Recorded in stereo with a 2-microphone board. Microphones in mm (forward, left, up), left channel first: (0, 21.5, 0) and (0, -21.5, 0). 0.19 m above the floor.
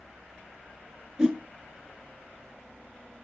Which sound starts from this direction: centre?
A whoosh, at 1.2 s.